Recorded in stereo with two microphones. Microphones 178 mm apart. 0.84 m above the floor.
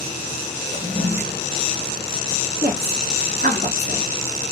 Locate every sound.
0.7 s a toilet flushing: 45° right (ahead or behind), 1.4 m
2.6 s a woman speaking: 55° right (ahead or behind), 1.3 m